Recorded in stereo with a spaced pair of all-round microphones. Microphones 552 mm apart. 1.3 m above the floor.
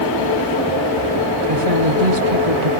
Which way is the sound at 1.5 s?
85° right.